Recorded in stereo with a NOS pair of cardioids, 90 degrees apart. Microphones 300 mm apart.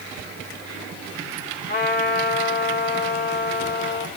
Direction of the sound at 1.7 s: 35° left.